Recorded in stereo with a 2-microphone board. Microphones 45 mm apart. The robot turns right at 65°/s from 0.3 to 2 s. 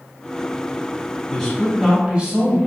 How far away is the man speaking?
About 2 m.